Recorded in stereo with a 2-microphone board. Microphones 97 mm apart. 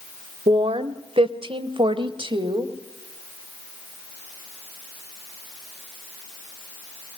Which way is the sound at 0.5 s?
65° right (ahead or behind).